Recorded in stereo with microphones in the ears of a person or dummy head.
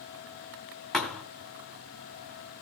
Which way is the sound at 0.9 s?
5° left (ahead or behind).